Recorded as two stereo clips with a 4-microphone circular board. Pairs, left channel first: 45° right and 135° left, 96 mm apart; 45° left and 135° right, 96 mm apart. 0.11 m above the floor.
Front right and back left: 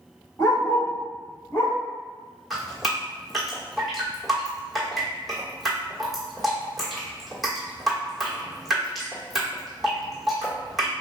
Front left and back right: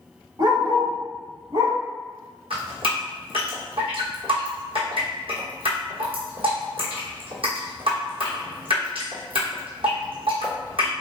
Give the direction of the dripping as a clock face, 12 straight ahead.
5 o'clock.